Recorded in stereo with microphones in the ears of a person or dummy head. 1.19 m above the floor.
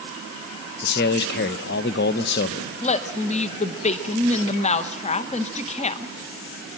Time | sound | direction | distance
0.8 | a man speaking | 55° left (ahead or behind) | 0.9 m
2.8 | a woman speaking | 30° left (ahead or behind) | 0.8 m